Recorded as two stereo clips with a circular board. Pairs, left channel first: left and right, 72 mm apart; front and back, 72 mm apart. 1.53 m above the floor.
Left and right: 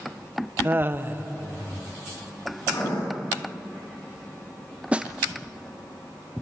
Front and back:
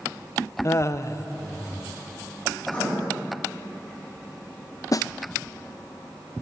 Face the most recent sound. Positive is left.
turn(degrees=-20)